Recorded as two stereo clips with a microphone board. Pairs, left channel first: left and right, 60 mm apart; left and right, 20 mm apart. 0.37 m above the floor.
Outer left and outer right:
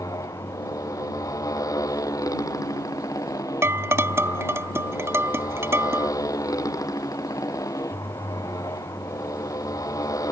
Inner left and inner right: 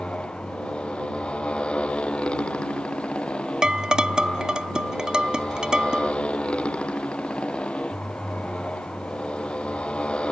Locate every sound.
0.0 s a motorcycle: 75° left (ahead or behind)
3.6 s dishes clattering: 45° right (ahead or behind)